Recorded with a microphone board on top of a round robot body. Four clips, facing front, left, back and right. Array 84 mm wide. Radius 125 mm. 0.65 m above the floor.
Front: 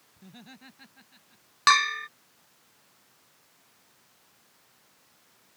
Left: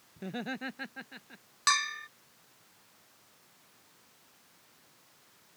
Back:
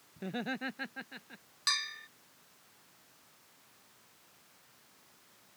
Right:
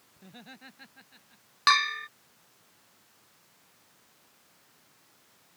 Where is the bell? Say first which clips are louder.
Right 6 dB, front 18 dB; 20° right.